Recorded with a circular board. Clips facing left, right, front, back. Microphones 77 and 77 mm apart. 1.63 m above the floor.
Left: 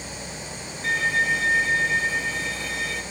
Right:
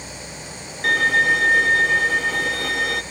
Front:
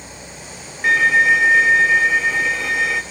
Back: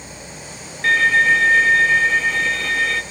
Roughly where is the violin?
Right.